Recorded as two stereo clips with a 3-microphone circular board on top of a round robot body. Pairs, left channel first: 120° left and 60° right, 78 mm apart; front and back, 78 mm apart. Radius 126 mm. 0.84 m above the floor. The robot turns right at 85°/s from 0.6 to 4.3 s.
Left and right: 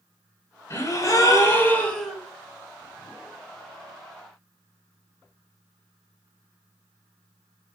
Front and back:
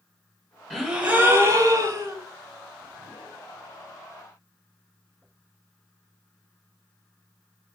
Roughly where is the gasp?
Left.